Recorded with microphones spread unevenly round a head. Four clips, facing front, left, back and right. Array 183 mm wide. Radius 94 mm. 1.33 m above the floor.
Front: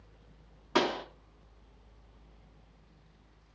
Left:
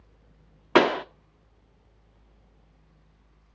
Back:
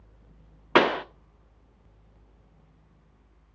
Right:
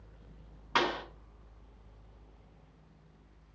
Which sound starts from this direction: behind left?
A pop, at 0.8 s.